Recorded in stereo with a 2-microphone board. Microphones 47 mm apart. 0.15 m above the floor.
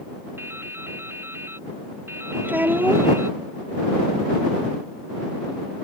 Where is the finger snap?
I don't hear a finger snap.